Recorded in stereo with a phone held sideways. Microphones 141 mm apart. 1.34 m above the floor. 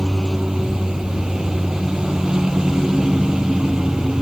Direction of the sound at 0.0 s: 5° right (ahead or behind).